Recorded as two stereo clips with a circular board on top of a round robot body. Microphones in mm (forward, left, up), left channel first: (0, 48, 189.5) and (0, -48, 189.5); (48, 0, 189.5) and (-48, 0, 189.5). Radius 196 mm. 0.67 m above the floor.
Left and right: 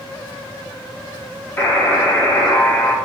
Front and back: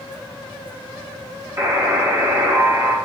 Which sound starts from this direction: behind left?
A buzzer, at 1.6 s.